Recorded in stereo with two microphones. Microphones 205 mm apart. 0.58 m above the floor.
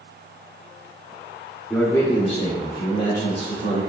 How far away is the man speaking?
About 0.7 m.